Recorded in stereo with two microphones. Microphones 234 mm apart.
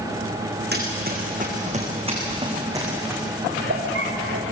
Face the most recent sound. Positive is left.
turn(degrees=-65)  # may be behind; listen again after turning